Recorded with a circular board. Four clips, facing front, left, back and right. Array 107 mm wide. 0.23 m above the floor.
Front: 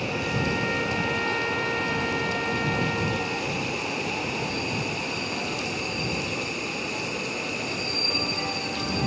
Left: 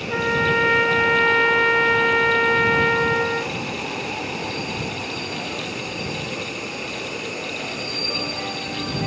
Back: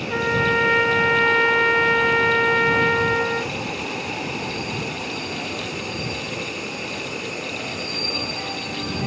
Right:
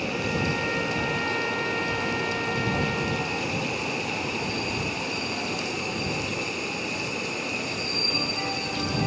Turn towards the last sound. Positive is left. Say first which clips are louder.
# left 11 dB, back 10 dB
turn(degrees=135)